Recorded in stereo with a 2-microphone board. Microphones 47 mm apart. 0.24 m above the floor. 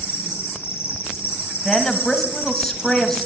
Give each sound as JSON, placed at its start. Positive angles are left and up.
{"t": 0.0, "sound": "an insect", "side_deg": 70, "distance_m": 3.5}
{"t": 1.6, "sound": "a woman speaking", "side_deg": 5, "distance_m": 1.1}